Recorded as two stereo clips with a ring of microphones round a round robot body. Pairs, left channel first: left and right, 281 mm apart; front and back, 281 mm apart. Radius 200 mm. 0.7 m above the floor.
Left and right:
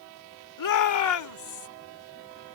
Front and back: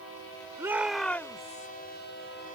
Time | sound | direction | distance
0.6 | a shout | 100° left | ?